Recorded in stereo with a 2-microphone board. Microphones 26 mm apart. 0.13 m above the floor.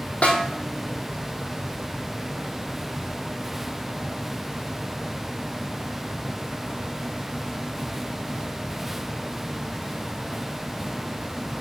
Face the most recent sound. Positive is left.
turn(degrees=55)  # may be behind; listen again after turning